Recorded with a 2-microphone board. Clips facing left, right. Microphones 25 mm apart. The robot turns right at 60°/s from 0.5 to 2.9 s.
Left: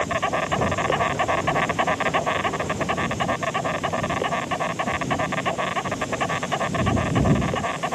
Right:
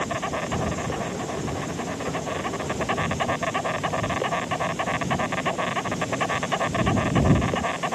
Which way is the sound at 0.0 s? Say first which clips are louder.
Left 4 dB; 25° left.